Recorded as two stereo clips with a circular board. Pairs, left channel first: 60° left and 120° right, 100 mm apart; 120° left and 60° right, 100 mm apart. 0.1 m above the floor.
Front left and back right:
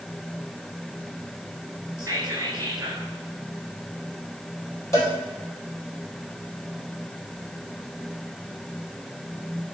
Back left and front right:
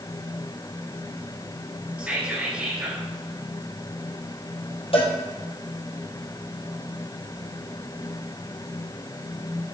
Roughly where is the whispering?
Behind right.